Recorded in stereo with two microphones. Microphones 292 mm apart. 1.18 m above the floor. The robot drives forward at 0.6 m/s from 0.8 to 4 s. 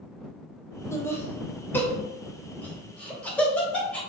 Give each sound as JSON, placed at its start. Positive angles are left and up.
{"t": 0.9, "sound": "laughter", "side_deg": 10, "distance_m": 1.6}